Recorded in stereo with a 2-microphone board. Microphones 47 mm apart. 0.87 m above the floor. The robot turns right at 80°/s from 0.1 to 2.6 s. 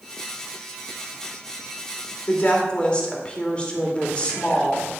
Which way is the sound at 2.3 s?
50° left (ahead or behind).